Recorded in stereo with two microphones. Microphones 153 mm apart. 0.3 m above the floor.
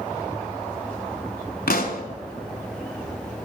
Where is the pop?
80° left, 0.9 m.